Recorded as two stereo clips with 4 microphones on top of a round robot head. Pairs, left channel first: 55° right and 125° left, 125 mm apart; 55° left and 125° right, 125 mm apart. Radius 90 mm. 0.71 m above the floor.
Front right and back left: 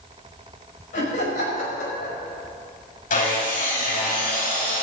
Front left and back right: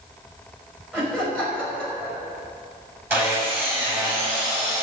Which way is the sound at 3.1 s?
45° right.